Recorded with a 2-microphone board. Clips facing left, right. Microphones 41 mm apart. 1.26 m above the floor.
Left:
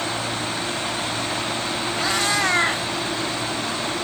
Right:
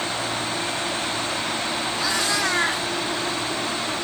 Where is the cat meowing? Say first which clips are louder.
Left 3 dB; 50° left (ahead or behind), 1.9 m.